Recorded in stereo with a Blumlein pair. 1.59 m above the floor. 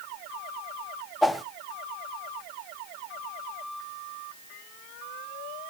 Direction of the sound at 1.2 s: 5° left.